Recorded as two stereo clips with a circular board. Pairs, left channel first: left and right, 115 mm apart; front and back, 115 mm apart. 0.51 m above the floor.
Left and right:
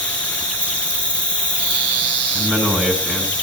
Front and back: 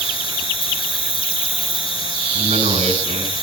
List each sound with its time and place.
0.0 s an insect: 40° left, 7.5 m
2.4 s a man speaking: 175° right, 5.5 m